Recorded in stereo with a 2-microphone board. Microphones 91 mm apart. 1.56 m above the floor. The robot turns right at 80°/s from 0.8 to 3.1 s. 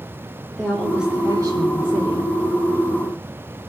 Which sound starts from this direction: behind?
A woman speaking, at 0.6 s.